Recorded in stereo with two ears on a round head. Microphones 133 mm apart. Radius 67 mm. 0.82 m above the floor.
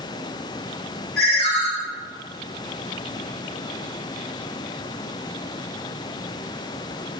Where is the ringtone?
70° left (ahead or behind), 1.2 m.